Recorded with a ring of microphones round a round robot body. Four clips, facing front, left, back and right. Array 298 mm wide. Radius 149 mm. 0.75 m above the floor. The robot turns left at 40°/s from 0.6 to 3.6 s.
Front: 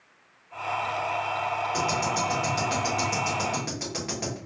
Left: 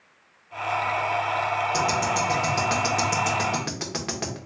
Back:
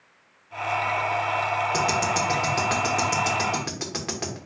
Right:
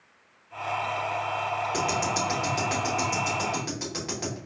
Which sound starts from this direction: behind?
Ticking, at 1.7 s.